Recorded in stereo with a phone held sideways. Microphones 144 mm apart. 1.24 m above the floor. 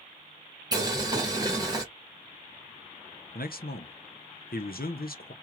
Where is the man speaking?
85° left, 0.5 m.